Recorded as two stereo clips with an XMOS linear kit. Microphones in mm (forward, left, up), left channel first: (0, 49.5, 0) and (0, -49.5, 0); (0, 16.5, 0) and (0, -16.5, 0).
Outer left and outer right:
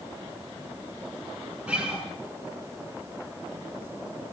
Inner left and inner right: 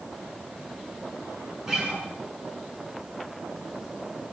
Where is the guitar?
10° right (ahead or behind), 8 m.